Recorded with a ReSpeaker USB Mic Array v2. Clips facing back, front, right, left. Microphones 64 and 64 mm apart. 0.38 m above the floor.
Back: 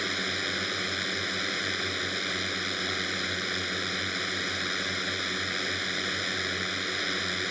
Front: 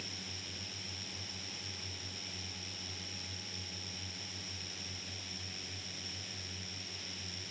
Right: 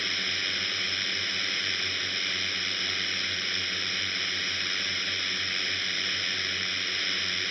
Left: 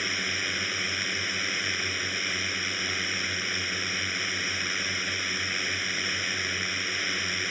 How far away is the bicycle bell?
I don't hear a bicycle bell.